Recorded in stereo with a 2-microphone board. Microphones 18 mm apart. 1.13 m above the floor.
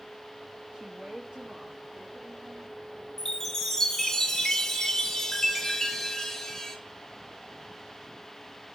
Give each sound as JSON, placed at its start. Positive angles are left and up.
{"t": 0.7, "sound": "a woman speaking", "side_deg": -55, "distance_m": 1.4}
{"t": 3.2, "sound": "a chime", "side_deg": 20, "distance_m": 2.0}